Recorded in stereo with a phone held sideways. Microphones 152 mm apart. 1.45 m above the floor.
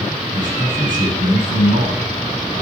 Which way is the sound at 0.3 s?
65° right (ahead or behind).